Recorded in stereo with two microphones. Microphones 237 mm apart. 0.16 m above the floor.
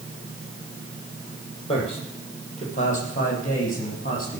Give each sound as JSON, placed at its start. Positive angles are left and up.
{"t": 1.7, "sound": "a man speaking", "side_deg": 25, "distance_m": 6.0}